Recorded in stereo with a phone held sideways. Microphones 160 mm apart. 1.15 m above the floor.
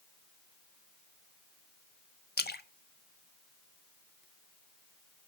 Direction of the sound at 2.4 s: 85° left.